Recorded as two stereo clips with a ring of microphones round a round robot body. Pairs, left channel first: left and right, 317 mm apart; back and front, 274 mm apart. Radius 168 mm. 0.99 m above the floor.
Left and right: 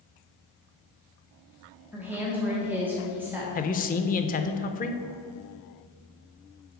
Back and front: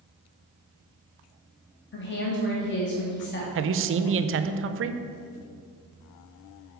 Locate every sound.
1.9 s a woman speaking: 170° right, 0.9 m
3.5 s a man speaking: 30° left, 0.5 m